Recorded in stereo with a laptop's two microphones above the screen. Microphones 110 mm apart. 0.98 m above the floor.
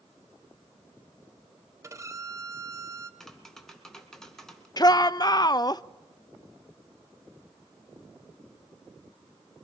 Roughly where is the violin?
Right.